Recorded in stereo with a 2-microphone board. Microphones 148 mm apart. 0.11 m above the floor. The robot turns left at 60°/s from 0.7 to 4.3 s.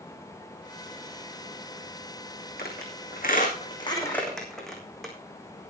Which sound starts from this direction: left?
A squeak, at 2.6 s.